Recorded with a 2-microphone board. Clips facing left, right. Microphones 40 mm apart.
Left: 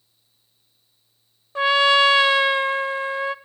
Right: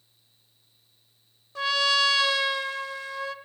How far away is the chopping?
I don't hear chopping.